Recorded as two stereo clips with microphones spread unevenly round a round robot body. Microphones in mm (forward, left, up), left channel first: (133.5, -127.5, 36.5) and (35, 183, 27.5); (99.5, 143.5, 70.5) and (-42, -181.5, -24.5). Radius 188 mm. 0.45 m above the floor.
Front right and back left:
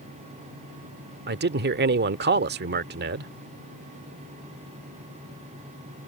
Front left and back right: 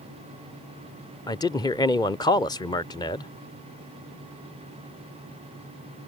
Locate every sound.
1.3 s a man speaking: 155° left